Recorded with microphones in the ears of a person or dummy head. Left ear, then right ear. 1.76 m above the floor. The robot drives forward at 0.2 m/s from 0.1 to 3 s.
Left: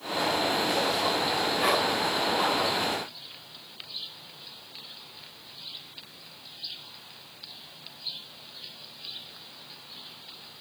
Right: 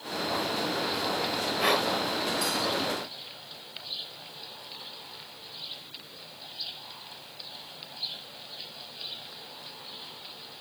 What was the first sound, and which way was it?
Breathing, centre (ahead or behind).